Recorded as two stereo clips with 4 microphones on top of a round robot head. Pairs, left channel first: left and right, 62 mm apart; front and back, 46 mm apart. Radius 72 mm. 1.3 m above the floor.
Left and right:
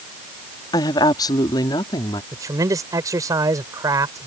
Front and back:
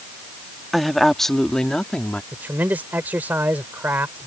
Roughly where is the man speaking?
Behind right.